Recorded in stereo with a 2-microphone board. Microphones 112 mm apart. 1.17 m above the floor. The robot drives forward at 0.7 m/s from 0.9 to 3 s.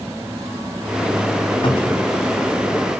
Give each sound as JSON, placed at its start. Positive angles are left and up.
{"t": 1.6, "sound": "a cupboard door", "side_deg": 45, "distance_m": 1.1}